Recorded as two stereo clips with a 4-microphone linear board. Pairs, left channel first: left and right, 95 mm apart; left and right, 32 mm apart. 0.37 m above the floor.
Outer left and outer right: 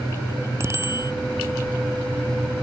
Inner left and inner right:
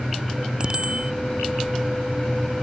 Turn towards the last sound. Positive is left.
turn(degrees=-30)  # may be behind; listen again after turning